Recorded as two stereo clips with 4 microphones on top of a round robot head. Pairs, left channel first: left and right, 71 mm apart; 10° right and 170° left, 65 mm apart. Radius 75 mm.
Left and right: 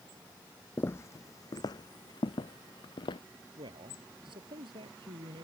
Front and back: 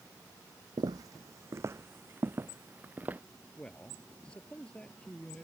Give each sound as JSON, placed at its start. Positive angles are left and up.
{"t": 0.8, "sound": "footsteps", "azimuth_deg": 150}
{"t": 3.6, "sound": "a man speaking", "azimuth_deg": -90}